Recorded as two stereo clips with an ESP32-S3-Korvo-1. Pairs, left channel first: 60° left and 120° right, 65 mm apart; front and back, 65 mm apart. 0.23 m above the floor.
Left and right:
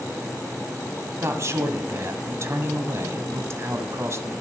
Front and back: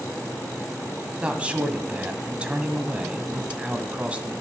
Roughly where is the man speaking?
Behind right.